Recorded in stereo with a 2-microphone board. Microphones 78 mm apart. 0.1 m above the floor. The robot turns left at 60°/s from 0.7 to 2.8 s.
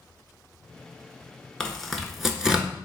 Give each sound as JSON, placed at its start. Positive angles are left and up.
{"t": 1.6, "sound": "tearing paper", "side_deg": 10, "distance_m": 0.7}